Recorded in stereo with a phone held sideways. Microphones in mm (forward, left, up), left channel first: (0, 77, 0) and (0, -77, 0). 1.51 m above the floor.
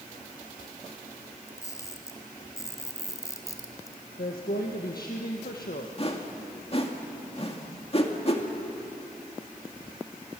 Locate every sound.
1.5 s a camera shutter: 20° left (ahead or behind), 2 m
4.2 s a woman speaking: 80° left, 1.6 m
6.0 s a whoosh: 40° left (ahead or behind), 2 m